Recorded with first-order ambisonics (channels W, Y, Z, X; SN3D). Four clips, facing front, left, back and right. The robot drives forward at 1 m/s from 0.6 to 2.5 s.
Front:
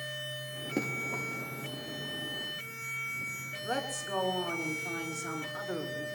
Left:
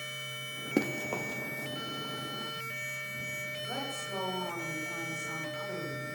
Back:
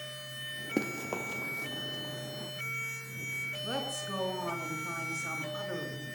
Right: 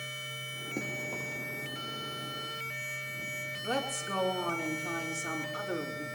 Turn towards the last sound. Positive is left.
turn(degrees=-110)